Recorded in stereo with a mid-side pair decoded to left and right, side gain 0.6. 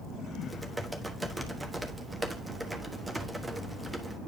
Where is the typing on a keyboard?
10° right, 1.2 m.